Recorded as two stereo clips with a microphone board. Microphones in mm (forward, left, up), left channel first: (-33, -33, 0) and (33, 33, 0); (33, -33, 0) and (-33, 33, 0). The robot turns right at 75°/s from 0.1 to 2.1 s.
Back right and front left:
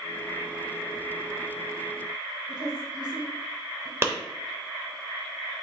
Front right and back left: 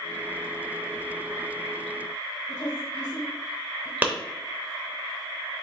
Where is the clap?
80° left, 0.7 m.